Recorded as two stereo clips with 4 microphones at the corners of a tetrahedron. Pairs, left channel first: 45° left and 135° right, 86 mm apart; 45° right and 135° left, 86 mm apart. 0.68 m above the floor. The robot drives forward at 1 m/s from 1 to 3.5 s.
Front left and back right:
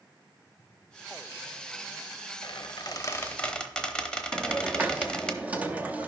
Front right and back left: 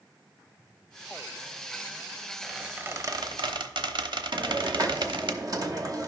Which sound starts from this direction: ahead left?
A squeak, at 2.4 s.